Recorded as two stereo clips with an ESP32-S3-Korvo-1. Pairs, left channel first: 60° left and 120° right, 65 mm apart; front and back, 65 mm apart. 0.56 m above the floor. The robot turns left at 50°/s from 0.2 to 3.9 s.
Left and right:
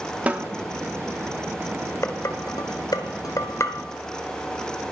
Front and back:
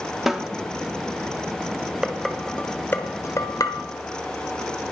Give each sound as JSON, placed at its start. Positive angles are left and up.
{"t": 0.3, "sound": "a snare drum", "azimuth_deg": -100, "distance_m": 0.9}
{"t": 2.0, "sound": "dishes clattering", "azimuth_deg": 100, "distance_m": 1.3}